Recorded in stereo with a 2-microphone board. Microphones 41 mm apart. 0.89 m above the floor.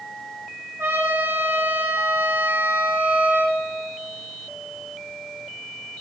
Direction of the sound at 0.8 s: 80° right.